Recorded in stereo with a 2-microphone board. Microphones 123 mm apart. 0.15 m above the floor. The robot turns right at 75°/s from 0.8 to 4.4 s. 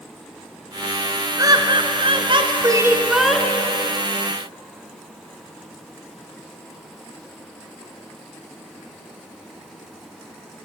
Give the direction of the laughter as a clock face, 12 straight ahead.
5 o'clock.